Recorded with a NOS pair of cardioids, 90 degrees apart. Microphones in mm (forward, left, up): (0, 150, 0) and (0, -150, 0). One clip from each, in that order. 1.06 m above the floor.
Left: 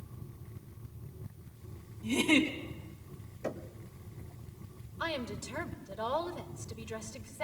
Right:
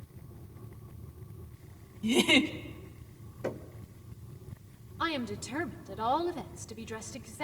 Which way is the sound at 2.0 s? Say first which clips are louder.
Right 3 dB; 55° right.